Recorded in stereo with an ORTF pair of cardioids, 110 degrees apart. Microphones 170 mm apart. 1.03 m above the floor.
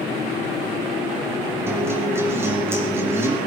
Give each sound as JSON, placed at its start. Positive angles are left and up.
{"t": 1.7, "sound": "a guitar", "azimuth_deg": -15, "distance_m": 4.0}